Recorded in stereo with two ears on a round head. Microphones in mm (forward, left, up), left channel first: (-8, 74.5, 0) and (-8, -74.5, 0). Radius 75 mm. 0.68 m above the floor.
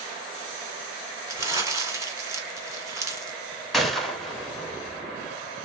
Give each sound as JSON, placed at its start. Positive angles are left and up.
{"t": 1.3, "sound": "crumpling", "side_deg": -20, "distance_m": 1.5}
{"t": 3.7, "sound": "a gunshot", "side_deg": 0, "distance_m": 1.0}